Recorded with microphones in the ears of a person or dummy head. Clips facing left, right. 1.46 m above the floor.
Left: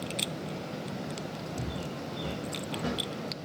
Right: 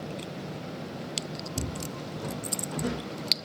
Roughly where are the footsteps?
Right.